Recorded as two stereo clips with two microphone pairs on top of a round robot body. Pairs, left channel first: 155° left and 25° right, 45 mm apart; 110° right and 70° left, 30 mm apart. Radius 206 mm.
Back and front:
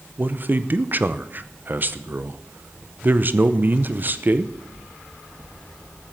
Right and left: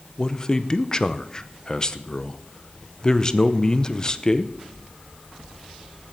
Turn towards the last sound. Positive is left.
turn(degrees=-60)